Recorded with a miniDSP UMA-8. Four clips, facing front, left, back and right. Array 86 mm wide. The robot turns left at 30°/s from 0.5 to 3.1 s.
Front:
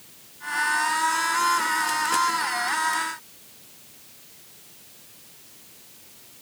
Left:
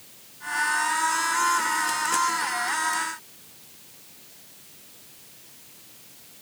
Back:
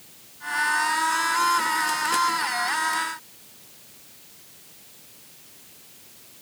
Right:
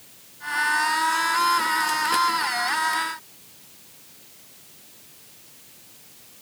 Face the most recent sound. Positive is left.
No sound to turn to.